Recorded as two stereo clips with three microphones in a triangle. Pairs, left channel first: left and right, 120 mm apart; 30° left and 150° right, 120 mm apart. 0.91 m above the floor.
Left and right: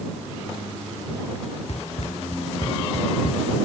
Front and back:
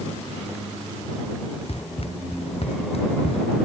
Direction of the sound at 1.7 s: 65° left.